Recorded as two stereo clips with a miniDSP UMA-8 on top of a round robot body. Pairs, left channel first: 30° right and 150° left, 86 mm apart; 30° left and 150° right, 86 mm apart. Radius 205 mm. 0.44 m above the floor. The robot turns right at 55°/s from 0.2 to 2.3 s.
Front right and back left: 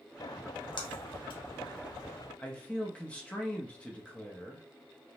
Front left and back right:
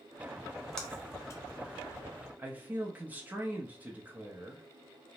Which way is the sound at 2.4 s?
95° right.